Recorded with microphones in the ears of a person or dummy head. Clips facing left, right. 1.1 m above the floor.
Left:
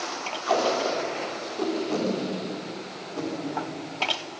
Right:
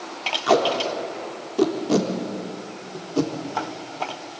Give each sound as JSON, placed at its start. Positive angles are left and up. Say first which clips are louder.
{"t": 0.5, "sound": "tape being pulled", "louder": "right 4 dB", "side_deg": -60, "distance_m": 3.5}